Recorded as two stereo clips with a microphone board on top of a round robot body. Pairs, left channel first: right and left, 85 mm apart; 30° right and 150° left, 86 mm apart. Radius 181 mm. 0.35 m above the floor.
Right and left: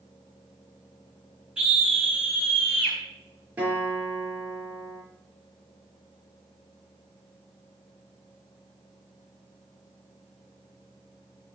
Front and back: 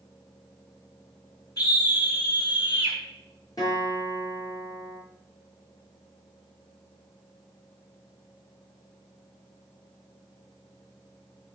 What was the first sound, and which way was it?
A scream, 15° left.